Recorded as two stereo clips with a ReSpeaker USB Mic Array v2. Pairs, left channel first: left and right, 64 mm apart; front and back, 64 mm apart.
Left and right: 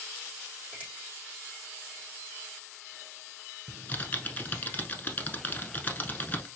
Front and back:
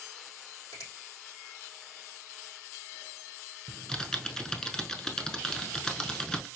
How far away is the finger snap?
About 3 m.